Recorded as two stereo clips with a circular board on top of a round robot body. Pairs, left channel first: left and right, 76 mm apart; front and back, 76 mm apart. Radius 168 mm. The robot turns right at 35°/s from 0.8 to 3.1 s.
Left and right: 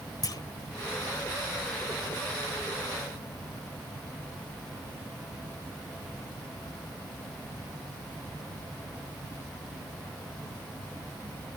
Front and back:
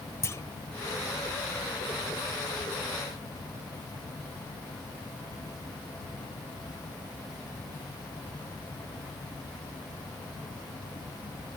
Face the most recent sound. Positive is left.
turn(degrees=135)